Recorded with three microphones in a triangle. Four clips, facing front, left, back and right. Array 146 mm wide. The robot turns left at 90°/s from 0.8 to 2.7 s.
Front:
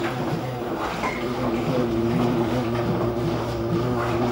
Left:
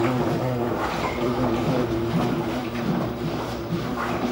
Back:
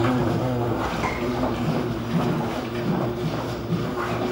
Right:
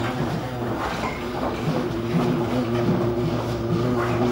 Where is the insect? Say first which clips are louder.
Left 4 dB, back 4 dB; 140° left, 0.8 m; by 4.3 s 35° right, 0.8 m.